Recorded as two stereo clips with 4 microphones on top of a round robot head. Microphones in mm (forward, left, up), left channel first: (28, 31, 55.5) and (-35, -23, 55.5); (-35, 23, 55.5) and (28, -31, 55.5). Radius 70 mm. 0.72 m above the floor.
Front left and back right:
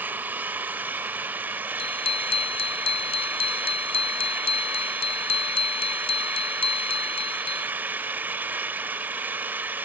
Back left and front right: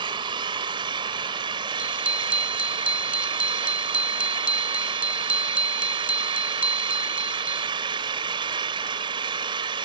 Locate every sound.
0.0 s an engine running: 70° right
1.8 s a bicycle bell: 35° left